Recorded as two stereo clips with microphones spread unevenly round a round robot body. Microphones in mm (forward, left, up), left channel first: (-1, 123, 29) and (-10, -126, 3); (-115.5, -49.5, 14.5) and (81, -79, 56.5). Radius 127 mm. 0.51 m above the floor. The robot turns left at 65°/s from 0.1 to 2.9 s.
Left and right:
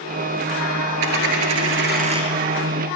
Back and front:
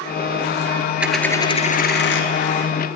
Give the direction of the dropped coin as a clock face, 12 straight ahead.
3 o'clock.